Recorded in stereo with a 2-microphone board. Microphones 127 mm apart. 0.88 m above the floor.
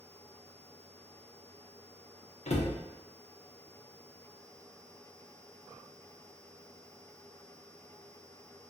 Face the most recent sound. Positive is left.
turn(degrees=60)  # may be behind; listen again after turning